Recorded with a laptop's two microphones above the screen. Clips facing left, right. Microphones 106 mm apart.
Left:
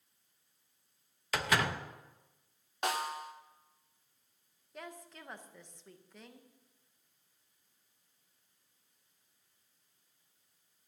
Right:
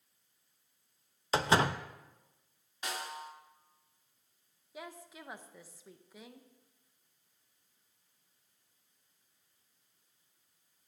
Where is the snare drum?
60° left (ahead or behind), 1.1 m.